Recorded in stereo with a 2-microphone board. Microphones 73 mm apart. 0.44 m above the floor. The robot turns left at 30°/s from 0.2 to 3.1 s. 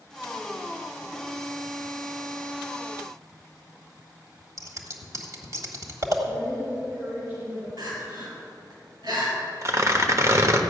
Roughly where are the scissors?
Right.